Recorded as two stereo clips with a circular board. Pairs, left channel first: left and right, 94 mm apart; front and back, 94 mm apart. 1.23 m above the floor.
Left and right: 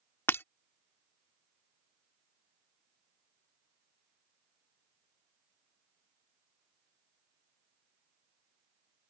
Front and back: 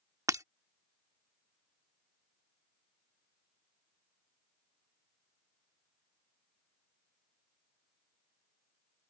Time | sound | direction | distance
0.3 | breaking glass | 145° left | ?